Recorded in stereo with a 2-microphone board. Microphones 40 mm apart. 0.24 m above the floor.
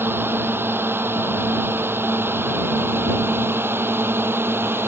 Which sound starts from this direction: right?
A drone, at 0.0 s.